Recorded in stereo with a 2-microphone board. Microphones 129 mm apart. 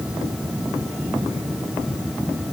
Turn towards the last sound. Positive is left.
No sound to turn to.